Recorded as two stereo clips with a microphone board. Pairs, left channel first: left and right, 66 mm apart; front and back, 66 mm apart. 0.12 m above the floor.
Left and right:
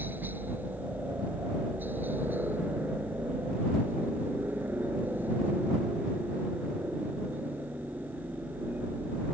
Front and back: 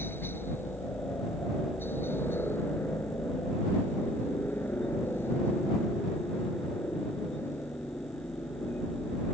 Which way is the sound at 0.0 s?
40° right.